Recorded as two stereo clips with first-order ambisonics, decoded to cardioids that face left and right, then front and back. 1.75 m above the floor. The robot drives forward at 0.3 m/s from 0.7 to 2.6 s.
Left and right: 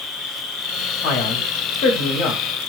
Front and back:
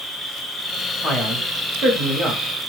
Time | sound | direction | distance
0.0 | an insect | 95° left | 0.9 m
1.0 | a man speaking | 100° left | 0.8 m